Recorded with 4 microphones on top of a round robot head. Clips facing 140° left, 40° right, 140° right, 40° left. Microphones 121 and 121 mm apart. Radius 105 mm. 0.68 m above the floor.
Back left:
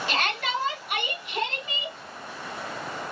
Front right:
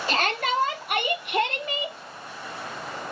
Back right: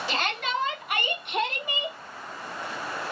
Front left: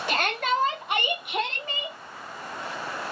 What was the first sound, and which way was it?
A shout, 10° left.